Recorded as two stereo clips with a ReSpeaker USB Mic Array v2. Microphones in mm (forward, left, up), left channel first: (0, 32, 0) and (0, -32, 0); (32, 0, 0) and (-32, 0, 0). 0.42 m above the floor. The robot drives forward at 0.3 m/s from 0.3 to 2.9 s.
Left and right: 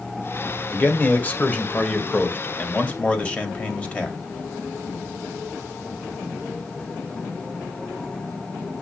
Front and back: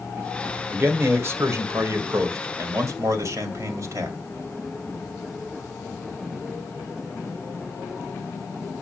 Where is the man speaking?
140° left, 1.6 m; by 4.2 s 155° left, 2 m.